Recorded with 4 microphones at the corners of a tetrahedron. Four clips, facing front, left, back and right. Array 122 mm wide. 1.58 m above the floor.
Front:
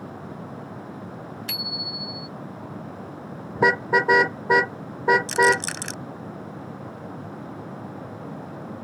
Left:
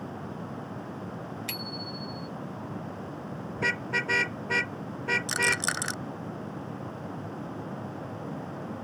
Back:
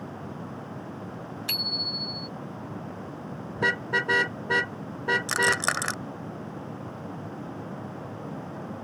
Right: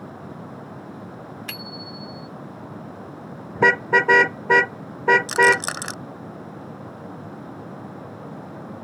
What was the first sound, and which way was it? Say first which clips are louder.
A bicycle bell: right 1 dB, front 1 dB; 105° right.